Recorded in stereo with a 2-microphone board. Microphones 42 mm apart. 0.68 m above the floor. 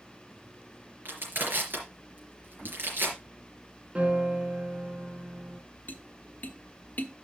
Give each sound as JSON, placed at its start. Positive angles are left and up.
{"t": 1.1, "sound": "crushing", "side_deg": -60, "distance_m": 4.0}
{"t": 4.0, "sound": "a piano", "side_deg": -25, "distance_m": 1.5}
{"t": 5.9, "sound": "tapping", "side_deg": 45, "distance_m": 1.1}